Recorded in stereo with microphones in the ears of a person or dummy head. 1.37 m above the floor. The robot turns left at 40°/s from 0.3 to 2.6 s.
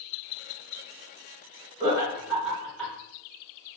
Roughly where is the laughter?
Right.